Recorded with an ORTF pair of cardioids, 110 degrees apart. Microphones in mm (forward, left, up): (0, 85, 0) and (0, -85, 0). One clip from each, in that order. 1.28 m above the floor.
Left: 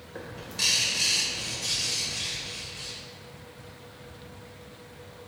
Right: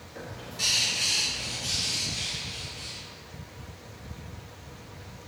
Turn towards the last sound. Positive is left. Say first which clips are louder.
# left 2 dB
turn(degrees=50)